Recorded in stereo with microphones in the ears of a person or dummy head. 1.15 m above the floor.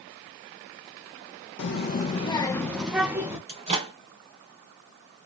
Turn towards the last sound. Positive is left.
turn(degrees=-35)  # may be behind; listen again after turning